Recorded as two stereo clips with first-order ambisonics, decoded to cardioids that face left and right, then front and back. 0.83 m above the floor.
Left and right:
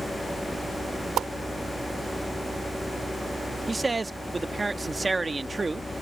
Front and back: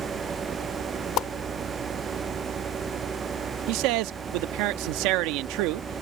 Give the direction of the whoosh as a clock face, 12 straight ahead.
1 o'clock.